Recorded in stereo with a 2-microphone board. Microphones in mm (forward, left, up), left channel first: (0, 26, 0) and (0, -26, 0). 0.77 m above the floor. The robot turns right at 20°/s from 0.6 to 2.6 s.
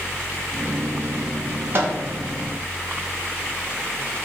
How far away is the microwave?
About 0.9 m.